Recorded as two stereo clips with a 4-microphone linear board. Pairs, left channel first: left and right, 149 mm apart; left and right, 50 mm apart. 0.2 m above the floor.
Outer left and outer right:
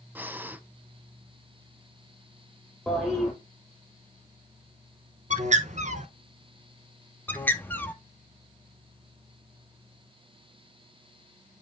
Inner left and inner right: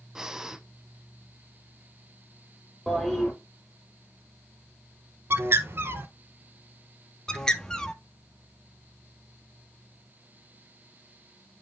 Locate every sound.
0.1 s breathing: 15° right (ahead or behind), 0.6 m
2.9 s a toilet flushing: centre (ahead or behind), 4 m
5.3 s a bird: 55° right (ahead or behind), 0.9 m
7.3 s a bird: 10° left (ahead or behind), 0.8 m